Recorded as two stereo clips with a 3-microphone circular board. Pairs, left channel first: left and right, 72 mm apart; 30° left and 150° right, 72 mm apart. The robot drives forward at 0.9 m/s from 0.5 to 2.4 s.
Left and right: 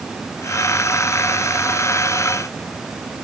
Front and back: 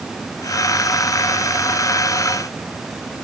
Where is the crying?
No crying in this recording.